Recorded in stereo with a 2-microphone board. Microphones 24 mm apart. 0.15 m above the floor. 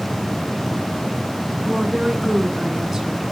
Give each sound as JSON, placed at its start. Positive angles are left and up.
{"t": 1.6, "sound": "a woman speaking", "side_deg": -20, "distance_m": 1.2}